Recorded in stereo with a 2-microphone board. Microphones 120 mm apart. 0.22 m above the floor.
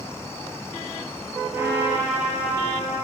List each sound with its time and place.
1.5 s a trumpet: 20° right (ahead or behind), 4.5 m